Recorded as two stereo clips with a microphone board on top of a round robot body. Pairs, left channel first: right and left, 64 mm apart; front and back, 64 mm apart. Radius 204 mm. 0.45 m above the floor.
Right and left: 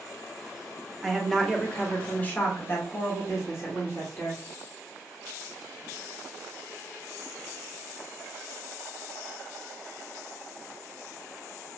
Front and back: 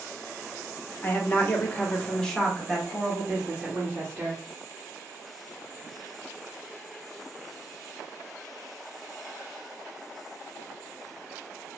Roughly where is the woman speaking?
Ahead.